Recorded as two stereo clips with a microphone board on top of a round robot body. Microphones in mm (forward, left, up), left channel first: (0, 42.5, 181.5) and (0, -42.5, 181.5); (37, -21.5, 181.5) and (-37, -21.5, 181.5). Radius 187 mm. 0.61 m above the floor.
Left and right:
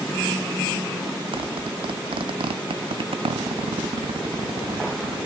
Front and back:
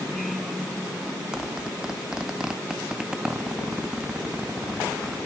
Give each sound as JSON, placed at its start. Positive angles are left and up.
{"t": 1.3, "sound": "a zipper", "azimuth_deg": -100, "distance_m": 0.5}